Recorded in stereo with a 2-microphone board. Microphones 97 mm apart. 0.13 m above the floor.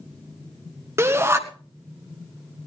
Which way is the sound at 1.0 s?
25° right (ahead or behind).